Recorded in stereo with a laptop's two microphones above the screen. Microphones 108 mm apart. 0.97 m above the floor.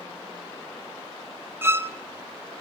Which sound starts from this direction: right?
A violin, at 1.6 s.